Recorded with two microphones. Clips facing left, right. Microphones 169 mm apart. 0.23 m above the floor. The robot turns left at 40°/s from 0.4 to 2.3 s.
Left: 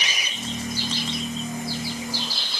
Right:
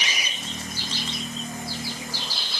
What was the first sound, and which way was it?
Only background noise.